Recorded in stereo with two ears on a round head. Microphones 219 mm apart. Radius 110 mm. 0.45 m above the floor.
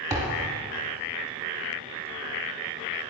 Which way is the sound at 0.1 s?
15° right (ahead or behind).